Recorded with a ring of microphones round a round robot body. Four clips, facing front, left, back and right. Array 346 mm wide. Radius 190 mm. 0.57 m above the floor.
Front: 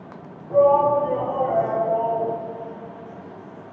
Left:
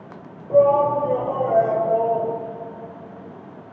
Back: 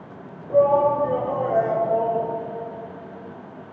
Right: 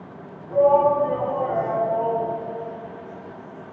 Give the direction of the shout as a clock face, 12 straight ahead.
8 o'clock.